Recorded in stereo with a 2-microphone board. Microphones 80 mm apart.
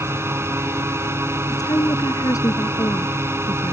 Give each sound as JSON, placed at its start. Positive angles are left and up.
{"t": 0.0, "sound": "a drone", "side_deg": -30}
{"t": 1.5, "sound": "a woman speaking", "side_deg": 50}